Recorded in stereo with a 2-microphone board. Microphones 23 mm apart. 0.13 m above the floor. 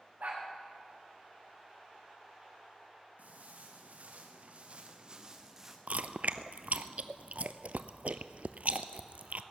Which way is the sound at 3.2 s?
85° right.